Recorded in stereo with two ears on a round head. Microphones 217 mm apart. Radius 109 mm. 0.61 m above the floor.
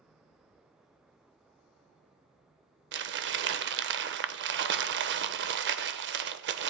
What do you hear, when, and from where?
2.9 s crumpling: 45° right (ahead or behind), 0.5 m